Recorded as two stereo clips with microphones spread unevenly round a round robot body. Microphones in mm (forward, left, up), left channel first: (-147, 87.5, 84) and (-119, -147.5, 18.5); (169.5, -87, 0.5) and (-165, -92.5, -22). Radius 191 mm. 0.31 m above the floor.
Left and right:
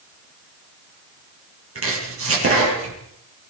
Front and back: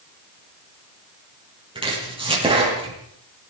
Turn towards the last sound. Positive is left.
turn(degrees=-105)